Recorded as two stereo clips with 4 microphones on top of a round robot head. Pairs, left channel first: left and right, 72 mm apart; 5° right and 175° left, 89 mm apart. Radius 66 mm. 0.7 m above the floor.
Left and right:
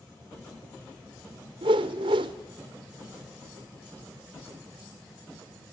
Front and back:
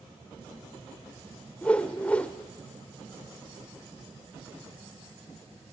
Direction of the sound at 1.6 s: 85° right.